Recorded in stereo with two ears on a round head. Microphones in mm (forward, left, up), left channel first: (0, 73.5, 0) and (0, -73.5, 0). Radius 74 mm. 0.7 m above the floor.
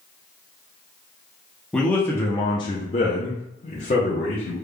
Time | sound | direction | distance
1.7 | a man speaking | 5° left (ahead or behind) | 0.7 m